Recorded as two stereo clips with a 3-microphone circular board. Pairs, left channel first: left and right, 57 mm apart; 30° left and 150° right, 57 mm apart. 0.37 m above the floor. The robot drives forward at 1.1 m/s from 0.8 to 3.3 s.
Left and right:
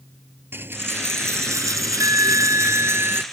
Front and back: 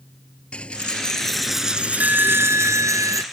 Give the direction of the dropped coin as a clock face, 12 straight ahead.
1 o'clock.